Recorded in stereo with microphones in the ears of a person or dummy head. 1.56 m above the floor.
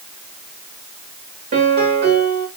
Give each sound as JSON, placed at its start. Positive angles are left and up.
{"t": 1.5, "sound": "a piano", "side_deg": -50, "distance_m": 3.0}